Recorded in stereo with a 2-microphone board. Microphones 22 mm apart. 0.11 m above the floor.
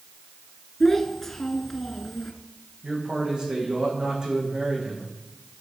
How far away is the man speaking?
About 6.5 m.